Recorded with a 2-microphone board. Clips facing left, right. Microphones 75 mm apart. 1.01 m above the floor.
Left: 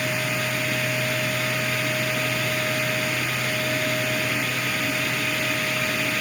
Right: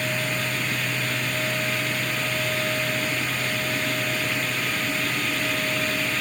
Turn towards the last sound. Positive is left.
No sound to turn to.